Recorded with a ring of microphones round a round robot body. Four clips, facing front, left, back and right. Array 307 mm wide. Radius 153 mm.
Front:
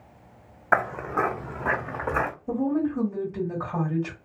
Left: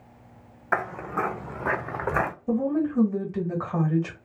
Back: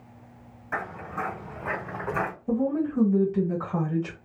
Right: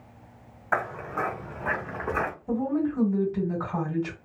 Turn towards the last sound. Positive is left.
turn(degrees=90)